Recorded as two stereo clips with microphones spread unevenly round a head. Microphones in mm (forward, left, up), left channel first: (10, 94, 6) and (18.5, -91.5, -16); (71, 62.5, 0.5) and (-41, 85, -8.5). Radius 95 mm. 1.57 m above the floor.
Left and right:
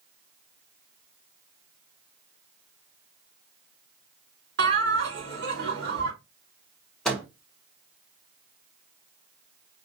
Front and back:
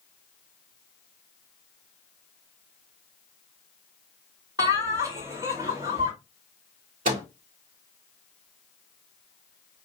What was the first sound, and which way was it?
Laughter, 120° right.